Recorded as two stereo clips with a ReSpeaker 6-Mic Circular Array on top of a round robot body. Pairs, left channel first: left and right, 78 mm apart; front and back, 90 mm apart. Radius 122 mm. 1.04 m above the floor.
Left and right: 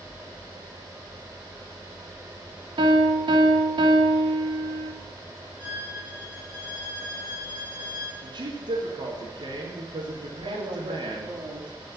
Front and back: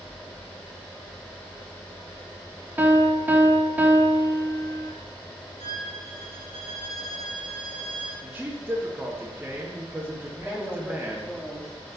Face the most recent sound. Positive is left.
turn(degrees=-95)